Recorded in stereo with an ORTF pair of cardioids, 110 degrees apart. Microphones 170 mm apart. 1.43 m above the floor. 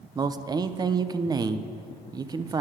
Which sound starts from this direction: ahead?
A man speaking, at 0.1 s.